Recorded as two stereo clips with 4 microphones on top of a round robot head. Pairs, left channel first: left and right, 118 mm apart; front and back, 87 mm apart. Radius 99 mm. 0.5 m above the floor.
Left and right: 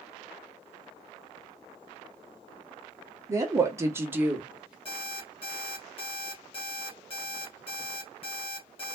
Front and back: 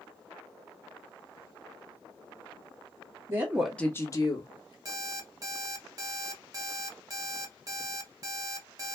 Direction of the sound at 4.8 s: 135° left.